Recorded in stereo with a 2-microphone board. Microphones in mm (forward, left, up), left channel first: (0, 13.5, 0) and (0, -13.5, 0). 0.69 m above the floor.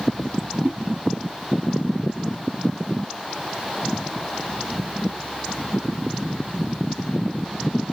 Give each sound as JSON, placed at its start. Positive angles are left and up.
{"t": 0.6, "sound": "a whoosh", "side_deg": -75, "distance_m": 2.5}